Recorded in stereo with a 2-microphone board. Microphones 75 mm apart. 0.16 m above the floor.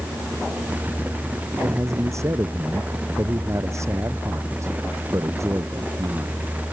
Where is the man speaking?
40° right (ahead or behind).